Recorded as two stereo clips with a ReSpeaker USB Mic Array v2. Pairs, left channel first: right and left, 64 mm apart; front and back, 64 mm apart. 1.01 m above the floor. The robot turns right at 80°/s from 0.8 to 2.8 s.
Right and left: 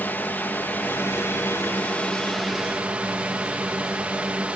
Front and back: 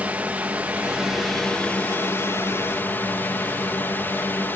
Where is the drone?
125° right; by 4.5 s 35° left.